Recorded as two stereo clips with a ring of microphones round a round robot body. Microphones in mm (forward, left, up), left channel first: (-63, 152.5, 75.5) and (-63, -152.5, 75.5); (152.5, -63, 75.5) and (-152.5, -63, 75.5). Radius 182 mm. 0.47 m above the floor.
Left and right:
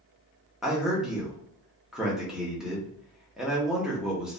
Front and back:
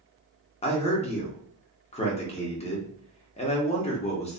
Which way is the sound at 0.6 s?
5° right.